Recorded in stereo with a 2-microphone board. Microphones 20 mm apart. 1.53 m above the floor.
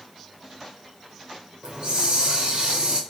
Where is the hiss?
50° right (ahead or behind), 1.0 m.